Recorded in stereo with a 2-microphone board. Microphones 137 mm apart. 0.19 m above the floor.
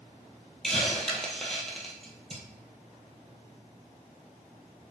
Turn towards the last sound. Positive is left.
turn(degrees=5)  # may be behind; listen again after turning